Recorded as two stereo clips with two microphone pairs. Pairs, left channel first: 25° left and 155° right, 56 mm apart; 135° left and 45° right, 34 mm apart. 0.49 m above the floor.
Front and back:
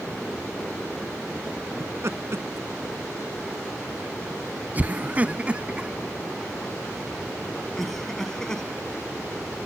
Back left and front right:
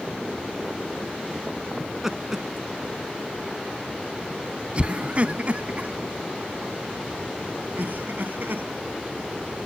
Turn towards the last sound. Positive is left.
turn(degrees=-55)